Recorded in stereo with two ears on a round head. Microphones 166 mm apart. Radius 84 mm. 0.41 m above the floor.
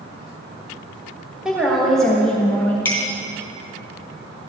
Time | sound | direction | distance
1.4 | a woman speaking | 5° right (ahead or behind) | 1.9 m
2.9 | a clink | 10° left (ahead or behind) | 3 m